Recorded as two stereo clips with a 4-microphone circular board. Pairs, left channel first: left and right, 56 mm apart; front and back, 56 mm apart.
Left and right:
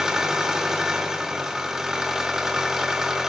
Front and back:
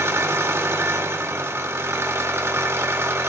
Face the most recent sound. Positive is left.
turn(degrees=-170)